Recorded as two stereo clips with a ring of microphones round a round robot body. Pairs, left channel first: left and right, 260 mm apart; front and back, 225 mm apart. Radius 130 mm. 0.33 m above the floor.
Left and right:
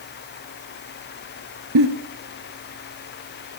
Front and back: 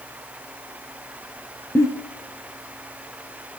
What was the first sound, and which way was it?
A giggle, 80° right.